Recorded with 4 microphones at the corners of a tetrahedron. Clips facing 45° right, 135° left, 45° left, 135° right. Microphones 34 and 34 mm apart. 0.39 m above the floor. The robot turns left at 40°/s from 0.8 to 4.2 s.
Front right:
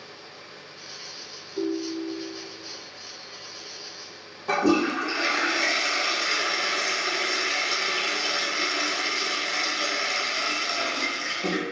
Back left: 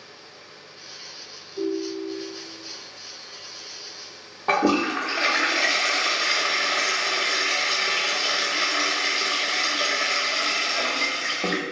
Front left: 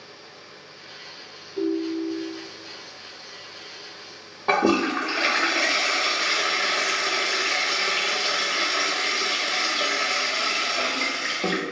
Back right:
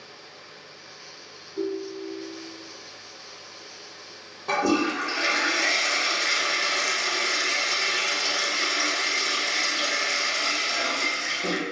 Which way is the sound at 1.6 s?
10° right.